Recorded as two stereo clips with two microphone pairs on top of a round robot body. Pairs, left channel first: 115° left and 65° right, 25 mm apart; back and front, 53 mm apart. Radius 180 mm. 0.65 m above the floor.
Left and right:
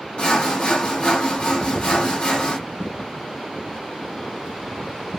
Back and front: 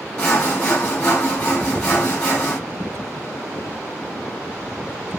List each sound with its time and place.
0.2 s sawing: 115° left, 1.9 m